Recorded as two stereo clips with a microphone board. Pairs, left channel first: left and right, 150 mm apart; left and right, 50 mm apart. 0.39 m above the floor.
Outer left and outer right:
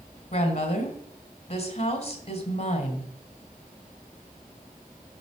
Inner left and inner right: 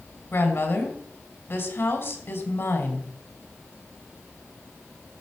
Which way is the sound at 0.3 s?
45° left (ahead or behind).